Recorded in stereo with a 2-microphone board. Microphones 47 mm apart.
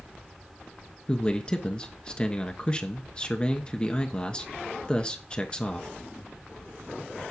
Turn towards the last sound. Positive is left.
turn(degrees=20)  # may be behind; listen again after turning